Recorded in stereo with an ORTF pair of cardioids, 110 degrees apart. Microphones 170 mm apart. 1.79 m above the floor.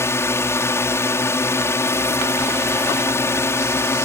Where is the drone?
15° left.